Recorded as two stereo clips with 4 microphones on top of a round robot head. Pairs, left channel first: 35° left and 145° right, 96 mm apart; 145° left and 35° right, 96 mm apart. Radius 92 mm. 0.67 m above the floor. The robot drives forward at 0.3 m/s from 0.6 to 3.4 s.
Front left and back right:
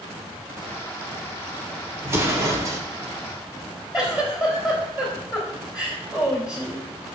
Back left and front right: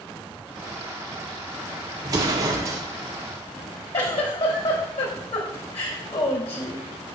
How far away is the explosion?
About 2.0 m.